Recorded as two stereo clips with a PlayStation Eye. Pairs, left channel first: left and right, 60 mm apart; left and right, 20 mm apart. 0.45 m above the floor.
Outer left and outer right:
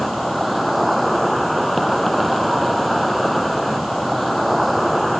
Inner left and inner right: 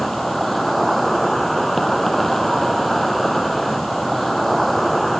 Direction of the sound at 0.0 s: Centre (ahead or behind).